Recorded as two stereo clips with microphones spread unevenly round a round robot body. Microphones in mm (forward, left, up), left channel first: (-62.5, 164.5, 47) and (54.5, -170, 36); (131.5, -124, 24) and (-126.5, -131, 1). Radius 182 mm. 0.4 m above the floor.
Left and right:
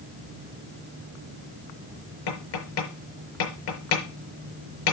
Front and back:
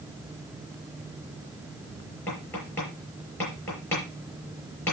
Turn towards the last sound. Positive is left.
turn(degrees=85)